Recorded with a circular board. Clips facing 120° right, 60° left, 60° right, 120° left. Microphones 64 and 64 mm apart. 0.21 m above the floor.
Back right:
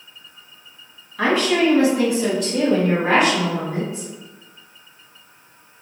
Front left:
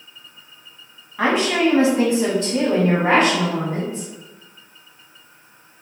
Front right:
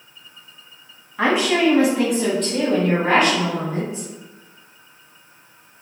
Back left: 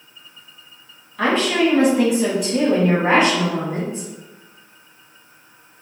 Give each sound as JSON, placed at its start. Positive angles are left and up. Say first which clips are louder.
{"t": 1.2, "sound": "a woman speaking", "louder": "even, even", "azimuth_deg": 0, "distance_m": 1.4}